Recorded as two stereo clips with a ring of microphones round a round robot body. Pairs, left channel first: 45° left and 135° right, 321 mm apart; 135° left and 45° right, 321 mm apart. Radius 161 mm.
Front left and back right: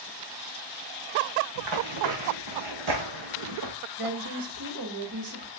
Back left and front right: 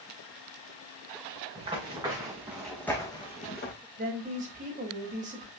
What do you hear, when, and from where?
1.6 s running footsteps: 120° right, 4 m; by 3.8 s 170° right, 2 m
4.0 s a woman speaking: 110° right, 3.5 m